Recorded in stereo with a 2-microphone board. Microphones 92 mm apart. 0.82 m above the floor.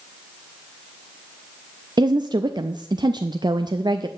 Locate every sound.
2.0 s a woman speaking: 50° right (ahead or behind), 0.5 m